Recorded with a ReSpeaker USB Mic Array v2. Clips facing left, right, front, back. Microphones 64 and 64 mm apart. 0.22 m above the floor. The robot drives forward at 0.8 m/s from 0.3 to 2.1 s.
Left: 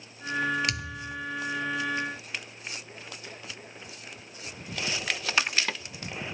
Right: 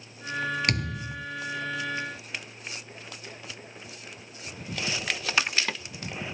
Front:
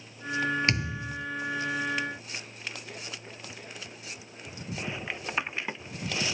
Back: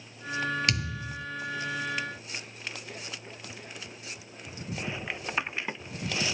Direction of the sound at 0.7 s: 55° right.